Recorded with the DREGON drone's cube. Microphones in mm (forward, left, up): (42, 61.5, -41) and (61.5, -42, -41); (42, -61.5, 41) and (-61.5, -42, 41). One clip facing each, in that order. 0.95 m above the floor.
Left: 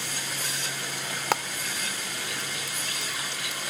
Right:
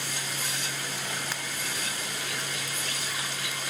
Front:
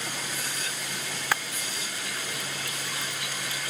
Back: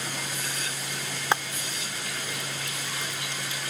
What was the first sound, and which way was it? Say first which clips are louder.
Frying: left 7 dB, back 4 dB; 105° left.